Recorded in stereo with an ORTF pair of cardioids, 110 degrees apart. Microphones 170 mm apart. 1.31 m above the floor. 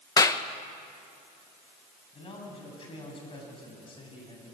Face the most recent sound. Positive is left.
turn(degrees=35)